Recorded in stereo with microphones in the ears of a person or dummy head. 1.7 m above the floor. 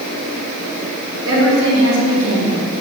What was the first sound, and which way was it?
A woman speaking, 75° right (ahead or behind).